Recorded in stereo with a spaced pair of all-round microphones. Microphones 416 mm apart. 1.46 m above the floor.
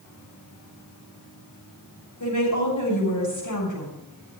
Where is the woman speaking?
55° left (ahead or behind), 6 m.